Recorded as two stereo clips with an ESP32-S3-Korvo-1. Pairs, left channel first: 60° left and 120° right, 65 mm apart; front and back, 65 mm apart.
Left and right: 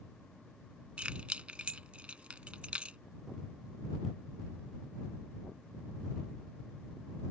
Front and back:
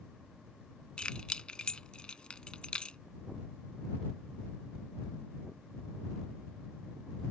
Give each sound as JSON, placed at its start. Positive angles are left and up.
{"t": 1.0, "sound": "keys jangling", "azimuth_deg": -65}